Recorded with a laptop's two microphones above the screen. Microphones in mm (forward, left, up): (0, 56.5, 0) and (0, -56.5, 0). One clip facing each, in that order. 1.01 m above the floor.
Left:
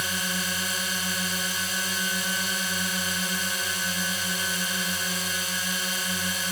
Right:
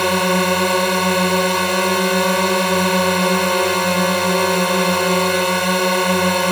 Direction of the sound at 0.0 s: 75° right (ahead or behind).